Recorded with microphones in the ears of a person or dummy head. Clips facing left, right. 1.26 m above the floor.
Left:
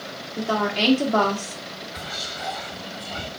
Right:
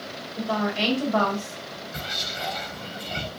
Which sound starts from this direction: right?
Whispering, at 1.9 s.